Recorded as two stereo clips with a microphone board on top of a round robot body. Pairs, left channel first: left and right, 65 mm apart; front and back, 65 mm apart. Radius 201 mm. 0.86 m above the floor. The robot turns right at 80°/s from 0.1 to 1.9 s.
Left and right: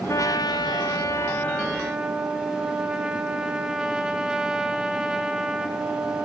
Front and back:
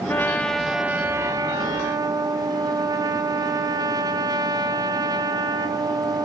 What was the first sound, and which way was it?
A trumpet, 50° left.